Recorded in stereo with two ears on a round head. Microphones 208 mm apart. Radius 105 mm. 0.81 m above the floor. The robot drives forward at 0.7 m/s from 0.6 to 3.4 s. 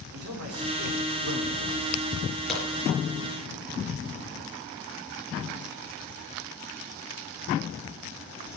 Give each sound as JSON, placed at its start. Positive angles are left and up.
{"t": 0.1, "sound": "a man speaking", "side_deg": -70, "distance_m": 3.0}
{"t": 2.5, "sound": "a crack", "side_deg": 0, "distance_m": 5.0}